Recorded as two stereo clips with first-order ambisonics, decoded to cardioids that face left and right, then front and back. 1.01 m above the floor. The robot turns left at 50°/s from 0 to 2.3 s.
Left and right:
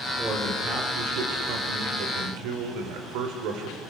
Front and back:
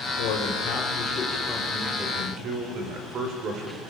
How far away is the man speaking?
About 4.5 m.